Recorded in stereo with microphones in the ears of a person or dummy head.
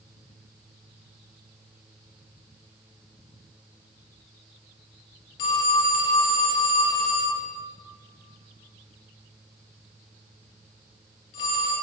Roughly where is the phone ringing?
Left.